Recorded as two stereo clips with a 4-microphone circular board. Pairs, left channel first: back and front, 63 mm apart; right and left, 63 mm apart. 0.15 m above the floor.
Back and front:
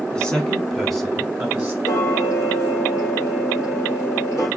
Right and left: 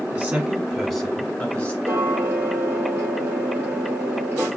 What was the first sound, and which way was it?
A man speaking, 125° left.